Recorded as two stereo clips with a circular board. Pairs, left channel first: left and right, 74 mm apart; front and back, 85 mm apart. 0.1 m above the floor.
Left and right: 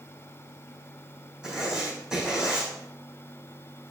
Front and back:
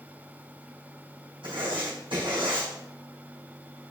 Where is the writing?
170° right, 4 m.